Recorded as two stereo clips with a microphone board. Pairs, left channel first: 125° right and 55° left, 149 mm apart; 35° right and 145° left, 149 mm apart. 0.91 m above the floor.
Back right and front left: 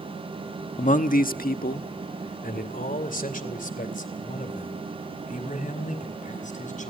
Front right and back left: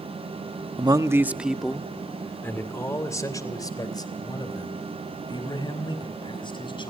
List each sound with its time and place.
0.8 s a man speaking: 160° right, 1.0 m; by 6.9 s 90° right, 6 m